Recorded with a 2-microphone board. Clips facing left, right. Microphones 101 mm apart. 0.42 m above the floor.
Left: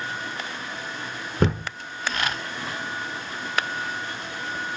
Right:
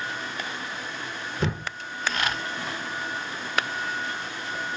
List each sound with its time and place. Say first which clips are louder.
1.4 s a thud: left 6 dB; 50° left (ahead or behind), 1.2 m